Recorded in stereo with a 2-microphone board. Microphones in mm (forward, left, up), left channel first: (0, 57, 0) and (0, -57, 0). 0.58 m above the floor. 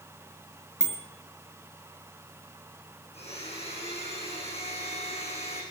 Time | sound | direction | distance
0.8 | a bicycle bell | 5° left (ahead or behind) | 6.5 m
3.1 | a blender | 65° left (ahead or behind) | 7 m